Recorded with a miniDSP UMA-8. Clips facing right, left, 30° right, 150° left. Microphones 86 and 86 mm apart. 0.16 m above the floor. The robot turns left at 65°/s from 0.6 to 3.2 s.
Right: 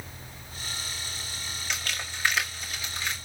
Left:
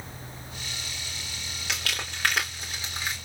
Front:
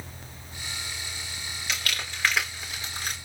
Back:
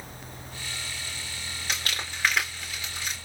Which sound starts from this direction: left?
Crumpling, at 1.7 s.